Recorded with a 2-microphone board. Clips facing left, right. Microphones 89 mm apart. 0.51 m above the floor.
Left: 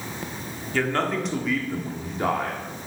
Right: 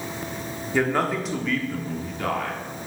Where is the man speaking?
15° right (ahead or behind), 1.0 m; by 2.9 s 40° left (ahead or behind), 1.1 m.